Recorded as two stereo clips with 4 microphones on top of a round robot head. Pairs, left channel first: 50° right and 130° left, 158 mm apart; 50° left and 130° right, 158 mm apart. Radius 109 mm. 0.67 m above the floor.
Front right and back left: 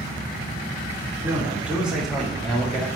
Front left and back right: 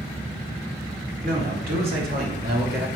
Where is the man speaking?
150° right, 2.5 m; by 2.9 s 130° right, 1.9 m.